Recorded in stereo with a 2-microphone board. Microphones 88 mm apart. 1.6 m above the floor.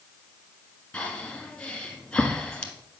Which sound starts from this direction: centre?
Breathing, at 0.9 s.